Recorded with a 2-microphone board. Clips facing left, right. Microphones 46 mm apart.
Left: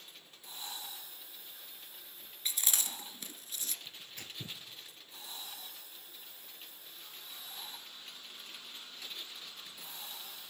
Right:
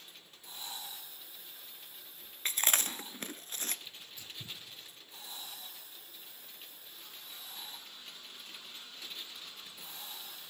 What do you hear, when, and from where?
2.5 s chewing: 50° right (ahead or behind), 0.5 m
3.9 s tearing paper: 55° left (ahead or behind), 1.2 m